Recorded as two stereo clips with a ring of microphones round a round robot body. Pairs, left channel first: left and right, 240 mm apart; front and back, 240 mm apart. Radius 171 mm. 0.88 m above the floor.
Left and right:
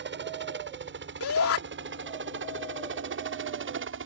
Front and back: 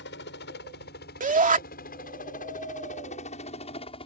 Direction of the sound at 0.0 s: 55° right.